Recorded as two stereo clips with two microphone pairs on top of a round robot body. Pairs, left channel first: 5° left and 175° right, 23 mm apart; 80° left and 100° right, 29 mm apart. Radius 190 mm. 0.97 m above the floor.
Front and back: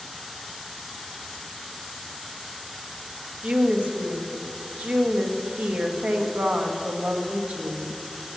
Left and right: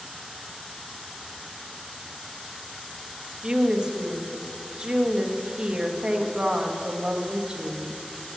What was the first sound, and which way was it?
A woman speaking, 165° right.